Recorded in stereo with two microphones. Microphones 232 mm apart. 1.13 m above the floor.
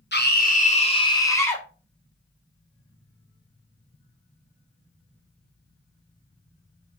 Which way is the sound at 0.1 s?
50° left (ahead or behind).